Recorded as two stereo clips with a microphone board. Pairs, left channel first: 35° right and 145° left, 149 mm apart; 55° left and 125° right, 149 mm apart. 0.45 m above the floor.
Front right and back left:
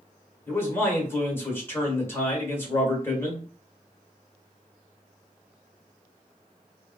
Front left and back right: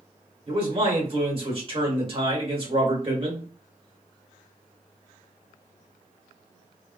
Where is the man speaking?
100° right, 1.1 m.